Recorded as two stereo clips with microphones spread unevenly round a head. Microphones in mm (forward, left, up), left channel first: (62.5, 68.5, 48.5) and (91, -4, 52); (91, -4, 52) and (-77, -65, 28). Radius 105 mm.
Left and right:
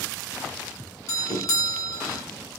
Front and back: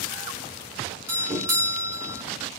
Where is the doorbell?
135° left, 1.3 m.